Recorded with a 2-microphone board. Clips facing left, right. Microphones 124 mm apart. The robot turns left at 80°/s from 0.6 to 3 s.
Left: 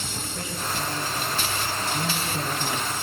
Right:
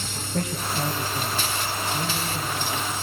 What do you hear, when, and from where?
0.3 s a man speaking: 60° right, 7.5 m; by 2.9 s 115° left, 7.5 m